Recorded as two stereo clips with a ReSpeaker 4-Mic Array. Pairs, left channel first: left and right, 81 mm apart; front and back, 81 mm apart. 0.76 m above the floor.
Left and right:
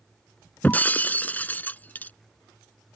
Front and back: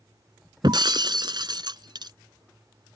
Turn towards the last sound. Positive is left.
turn(degrees=160)